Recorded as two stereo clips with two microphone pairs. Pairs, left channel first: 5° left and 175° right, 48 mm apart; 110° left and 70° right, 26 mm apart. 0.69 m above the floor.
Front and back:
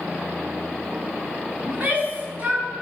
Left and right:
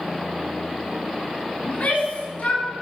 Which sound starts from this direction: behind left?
A shout, at 1.7 s.